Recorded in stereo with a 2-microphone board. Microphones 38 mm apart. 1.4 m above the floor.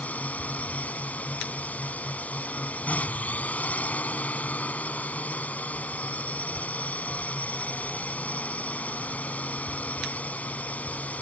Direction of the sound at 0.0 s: 40° left (ahead or behind).